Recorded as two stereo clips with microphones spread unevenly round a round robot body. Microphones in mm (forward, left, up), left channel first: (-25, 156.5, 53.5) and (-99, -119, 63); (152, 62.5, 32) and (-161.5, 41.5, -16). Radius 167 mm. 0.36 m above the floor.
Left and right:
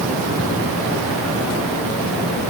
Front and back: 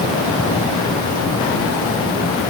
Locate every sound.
Only background noise.